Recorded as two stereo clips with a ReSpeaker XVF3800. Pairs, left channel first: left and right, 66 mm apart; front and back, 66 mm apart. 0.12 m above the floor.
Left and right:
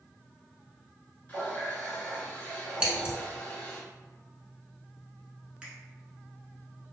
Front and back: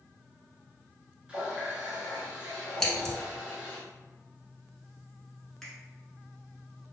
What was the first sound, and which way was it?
A running tap, 125° left.